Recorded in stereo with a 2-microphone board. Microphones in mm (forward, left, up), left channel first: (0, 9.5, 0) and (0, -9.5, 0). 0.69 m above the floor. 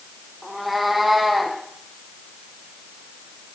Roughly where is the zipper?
I don't hear a zipper.